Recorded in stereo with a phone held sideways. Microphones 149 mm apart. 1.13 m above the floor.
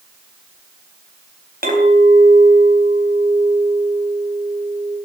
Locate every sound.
1.6 s a clink: 80° right, 4.5 m